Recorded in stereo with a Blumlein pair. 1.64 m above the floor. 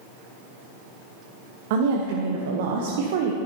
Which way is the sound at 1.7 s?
50° right.